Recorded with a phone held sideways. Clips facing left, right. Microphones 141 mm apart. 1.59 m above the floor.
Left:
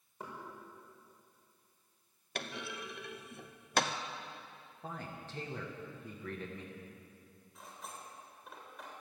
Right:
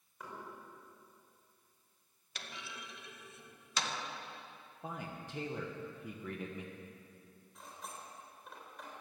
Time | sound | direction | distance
0.2 | knocking | 30° left (ahead or behind) | 5 m
2.4 | a clunk | 60° left (ahead or behind) | 0.8 m
4.8 | a man speaking | 15° right (ahead or behind) | 1.3 m
7.5 | cutlery clinking | centre (ahead or behind) | 3 m